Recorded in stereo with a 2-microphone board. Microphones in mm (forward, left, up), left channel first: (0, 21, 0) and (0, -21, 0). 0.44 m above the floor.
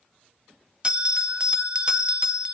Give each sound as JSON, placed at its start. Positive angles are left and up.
{"t": 0.8, "sound": "a bell", "side_deg": -25, "distance_m": 0.7}